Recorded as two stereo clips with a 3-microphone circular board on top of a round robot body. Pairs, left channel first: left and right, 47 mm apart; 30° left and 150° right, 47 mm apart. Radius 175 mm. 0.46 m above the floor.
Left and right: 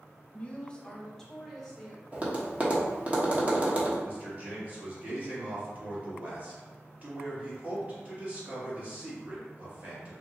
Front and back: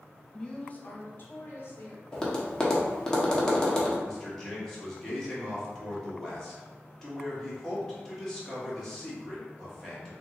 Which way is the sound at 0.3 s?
90° left.